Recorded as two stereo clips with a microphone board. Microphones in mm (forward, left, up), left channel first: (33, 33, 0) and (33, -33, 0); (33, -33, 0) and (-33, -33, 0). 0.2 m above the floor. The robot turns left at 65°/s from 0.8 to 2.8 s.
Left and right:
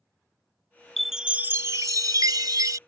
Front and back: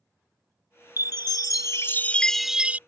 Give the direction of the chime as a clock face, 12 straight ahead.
12 o'clock.